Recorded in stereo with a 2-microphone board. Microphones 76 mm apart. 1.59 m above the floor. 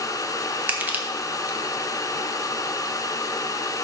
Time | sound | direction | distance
0.7 | crushing | 25° right (ahead or behind) | 1.0 m